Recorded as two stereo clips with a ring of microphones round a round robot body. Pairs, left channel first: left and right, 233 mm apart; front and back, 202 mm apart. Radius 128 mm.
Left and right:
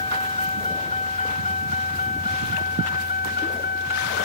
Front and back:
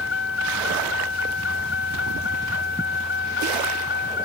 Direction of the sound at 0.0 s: 20° left.